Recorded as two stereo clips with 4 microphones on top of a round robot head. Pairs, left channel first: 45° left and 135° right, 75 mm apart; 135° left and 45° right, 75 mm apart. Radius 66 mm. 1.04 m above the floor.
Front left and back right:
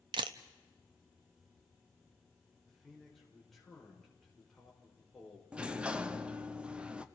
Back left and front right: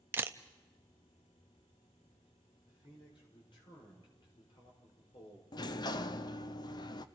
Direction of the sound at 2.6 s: 135° left.